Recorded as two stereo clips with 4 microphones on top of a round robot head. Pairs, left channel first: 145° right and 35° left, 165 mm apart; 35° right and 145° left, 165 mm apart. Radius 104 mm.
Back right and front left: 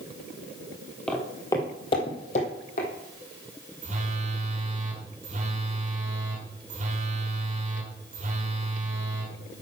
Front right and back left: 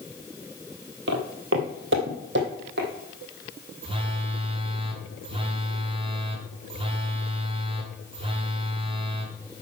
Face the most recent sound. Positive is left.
turn(degrees=85)